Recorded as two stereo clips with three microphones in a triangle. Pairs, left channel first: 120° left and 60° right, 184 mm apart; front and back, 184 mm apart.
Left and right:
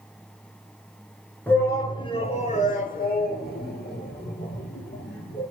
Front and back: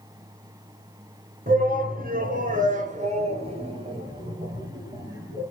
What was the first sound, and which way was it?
A shout, 160° right.